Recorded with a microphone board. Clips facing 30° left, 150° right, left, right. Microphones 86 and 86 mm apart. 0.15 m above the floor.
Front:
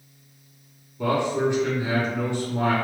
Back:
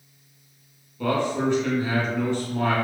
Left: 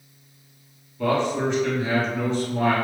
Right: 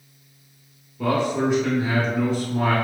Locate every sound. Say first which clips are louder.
1.0 s a man speaking: front 1 dB, right 1 dB; 15° right, 1.1 m